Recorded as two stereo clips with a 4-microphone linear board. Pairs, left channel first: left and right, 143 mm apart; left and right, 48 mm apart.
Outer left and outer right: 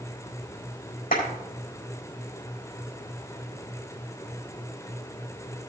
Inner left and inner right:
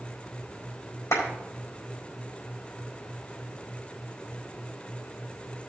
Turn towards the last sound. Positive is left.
turn(degrees=70)  # may be behind; listen again after turning